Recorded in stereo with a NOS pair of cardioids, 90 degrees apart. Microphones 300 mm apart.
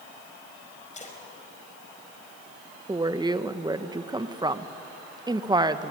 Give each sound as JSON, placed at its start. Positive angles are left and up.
{"t": 0.9, "sound": "a splash", "azimuth_deg": 25, "distance_m": 5.0}
{"t": 2.9, "sound": "a woman speaking", "azimuth_deg": -15, "distance_m": 1.1}